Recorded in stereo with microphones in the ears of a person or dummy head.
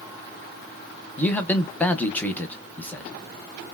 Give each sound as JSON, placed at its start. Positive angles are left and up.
{"t": 1.2, "sound": "a man speaking", "side_deg": 10, "distance_m": 0.5}